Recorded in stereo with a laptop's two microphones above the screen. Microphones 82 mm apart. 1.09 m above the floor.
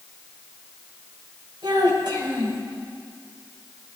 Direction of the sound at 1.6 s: 65° right (ahead or behind).